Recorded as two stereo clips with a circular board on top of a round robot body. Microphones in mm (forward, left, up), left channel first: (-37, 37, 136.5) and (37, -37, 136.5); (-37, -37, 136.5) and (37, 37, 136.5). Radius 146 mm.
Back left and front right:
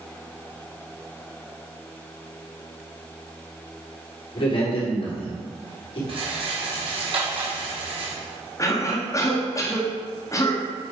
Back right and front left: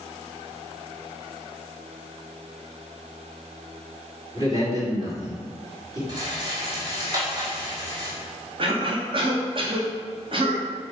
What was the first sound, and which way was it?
A man speaking, 100° left.